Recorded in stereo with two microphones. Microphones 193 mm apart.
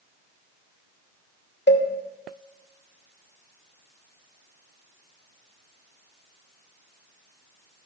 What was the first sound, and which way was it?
A cowbell, 60° left (ahead or behind).